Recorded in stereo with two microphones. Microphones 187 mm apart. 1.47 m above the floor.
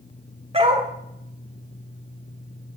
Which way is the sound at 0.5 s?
35° right (ahead or behind).